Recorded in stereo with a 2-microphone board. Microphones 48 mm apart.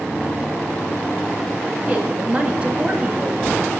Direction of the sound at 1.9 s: 25° right (ahead or behind).